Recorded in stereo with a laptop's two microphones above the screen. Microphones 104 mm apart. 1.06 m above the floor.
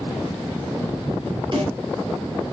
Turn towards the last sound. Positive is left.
turn(degrees=-50)  # may be behind; listen again after turning